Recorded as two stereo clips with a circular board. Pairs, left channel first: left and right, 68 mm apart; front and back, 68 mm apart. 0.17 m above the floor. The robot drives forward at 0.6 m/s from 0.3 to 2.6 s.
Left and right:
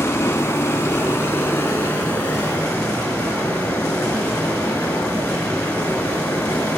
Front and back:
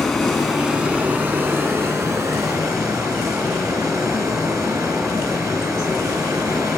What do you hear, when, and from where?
0.0 s running water: 85° left, 1.1 m; by 6.8 s 150° left, 1.7 m